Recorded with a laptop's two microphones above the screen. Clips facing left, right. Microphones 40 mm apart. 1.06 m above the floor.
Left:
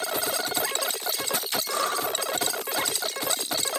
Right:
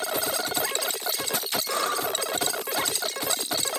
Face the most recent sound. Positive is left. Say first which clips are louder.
# even
turn(degrees=-60)  # may be behind; listen again after turning